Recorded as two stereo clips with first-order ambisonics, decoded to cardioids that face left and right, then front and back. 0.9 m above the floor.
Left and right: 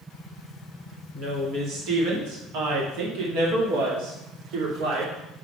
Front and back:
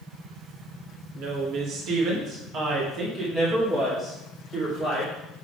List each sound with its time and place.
1.1 s a woman speaking: 150° right, 1.8 m; by 5.1 s 95° right, 3 m